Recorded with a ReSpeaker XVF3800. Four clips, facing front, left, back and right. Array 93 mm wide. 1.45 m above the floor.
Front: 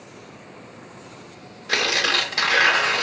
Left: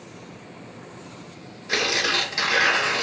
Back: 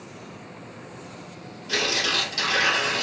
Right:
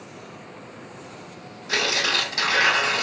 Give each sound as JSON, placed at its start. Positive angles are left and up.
{"t": 1.7, "sound": "tearing paper", "azimuth_deg": 0, "distance_m": 1.4}